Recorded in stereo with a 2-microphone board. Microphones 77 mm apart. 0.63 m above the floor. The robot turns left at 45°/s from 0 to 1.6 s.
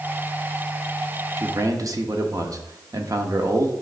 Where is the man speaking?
45° right (ahead or behind), 0.9 m; by 3.7 s 50° right (ahead or behind), 0.9 m.